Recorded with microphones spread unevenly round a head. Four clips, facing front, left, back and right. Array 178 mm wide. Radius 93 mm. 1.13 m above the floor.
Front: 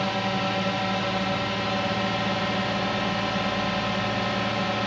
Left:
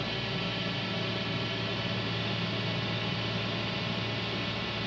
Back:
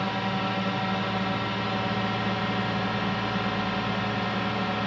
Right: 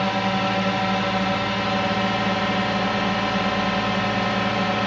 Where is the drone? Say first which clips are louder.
Right 13 dB, front 2 dB; 90° right.